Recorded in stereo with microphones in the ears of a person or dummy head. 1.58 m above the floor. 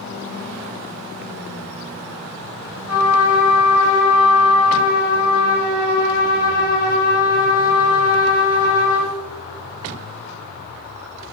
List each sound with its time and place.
2.9 s a trumpet: 5° right (ahead or behind), 1.2 m